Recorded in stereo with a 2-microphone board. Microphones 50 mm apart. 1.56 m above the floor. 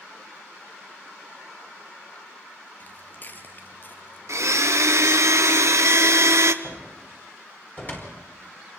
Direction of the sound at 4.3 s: 70° right (ahead or behind).